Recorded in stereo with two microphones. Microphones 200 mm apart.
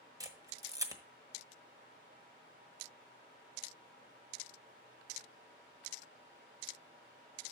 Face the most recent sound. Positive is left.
turn(degrees=-15)  # may be behind; listen again after turning